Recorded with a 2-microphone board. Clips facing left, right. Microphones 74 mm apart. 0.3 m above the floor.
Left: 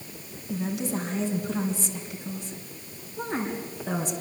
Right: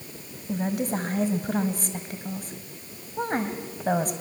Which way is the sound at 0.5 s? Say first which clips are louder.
Right 2 dB; 50° right (ahead or behind).